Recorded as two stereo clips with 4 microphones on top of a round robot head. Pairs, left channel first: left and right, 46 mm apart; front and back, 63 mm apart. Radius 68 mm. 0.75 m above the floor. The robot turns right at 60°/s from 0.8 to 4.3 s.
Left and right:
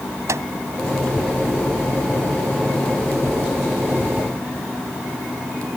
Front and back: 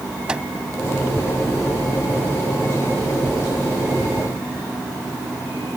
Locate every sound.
0.3 s a microwave: 105° right